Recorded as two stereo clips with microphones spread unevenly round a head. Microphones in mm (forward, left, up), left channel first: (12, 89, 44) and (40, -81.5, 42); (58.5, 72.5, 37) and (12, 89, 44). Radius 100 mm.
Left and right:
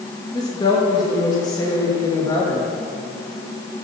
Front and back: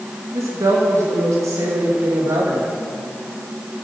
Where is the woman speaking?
170° left, 3 m.